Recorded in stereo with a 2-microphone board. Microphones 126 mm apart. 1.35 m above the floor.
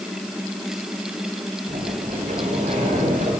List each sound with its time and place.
1.7 s a sliding door: 85° right, 8 m